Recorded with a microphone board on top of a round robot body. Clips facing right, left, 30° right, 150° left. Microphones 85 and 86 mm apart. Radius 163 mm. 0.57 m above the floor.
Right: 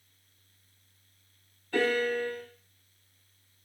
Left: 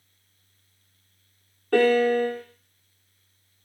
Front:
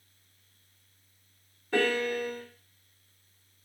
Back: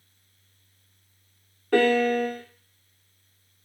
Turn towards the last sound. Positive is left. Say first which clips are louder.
# left 9 dB, back 7 dB
turn(degrees=115)